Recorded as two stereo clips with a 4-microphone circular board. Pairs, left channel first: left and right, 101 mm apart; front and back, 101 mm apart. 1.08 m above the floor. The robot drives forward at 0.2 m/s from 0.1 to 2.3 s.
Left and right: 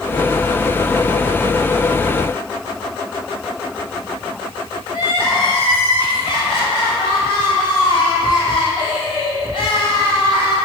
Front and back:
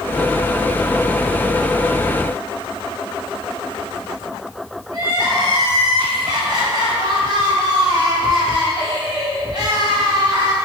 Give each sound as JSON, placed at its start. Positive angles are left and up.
{"t": 4.9, "sound": "crying", "azimuth_deg": 130, "distance_m": 4.5}